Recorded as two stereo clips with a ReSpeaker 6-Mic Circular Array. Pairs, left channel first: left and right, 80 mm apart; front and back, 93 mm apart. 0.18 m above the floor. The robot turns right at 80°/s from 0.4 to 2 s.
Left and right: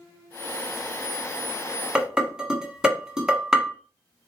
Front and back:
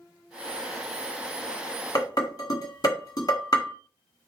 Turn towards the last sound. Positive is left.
turn(degrees=-10)